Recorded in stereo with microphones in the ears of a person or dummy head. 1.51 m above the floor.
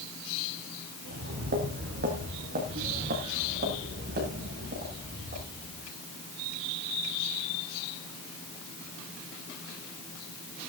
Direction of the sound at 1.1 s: 50° right (ahead or behind).